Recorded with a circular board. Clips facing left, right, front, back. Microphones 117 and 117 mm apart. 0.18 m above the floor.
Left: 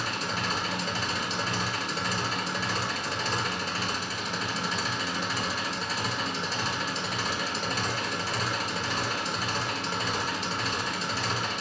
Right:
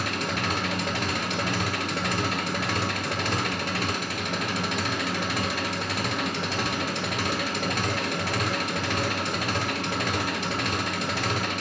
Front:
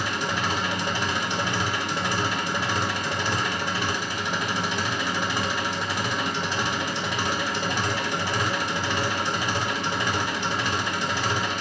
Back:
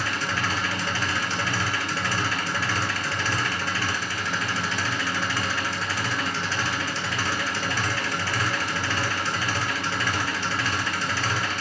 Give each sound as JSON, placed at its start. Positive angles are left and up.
{"t": 0.0, "sound": "an engine running", "azimuth_deg": -70, "distance_m": 0.7}